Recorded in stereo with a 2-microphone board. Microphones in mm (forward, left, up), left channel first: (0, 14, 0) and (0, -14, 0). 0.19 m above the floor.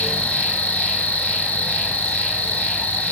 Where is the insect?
65° left (ahead or behind), 1.2 m.